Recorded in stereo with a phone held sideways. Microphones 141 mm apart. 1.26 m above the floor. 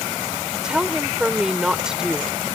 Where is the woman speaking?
5° right (ahead or behind).